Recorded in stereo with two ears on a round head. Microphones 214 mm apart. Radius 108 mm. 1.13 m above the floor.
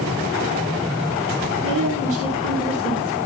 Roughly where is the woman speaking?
Right.